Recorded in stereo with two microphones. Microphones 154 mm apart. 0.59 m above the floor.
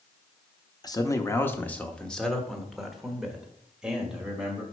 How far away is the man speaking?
About 0.7 m.